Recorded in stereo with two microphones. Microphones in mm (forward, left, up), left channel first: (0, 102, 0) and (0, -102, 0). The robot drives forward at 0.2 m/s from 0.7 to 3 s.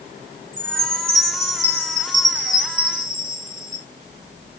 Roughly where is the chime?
Right.